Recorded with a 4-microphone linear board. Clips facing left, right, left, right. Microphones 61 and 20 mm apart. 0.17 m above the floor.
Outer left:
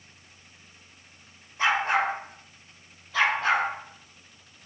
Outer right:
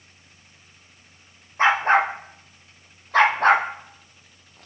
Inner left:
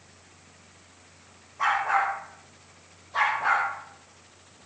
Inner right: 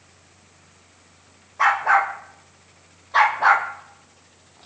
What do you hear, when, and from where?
1.6 s a dog barking: 40° right (ahead or behind), 4.5 m; by 4.7 s 65° right (ahead or behind), 3 m